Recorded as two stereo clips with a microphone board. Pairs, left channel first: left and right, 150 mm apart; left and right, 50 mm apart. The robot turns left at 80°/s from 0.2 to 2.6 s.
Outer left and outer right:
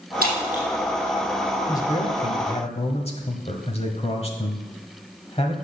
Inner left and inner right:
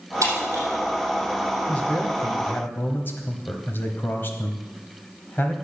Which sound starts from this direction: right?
Breaking glass, at 0.2 s.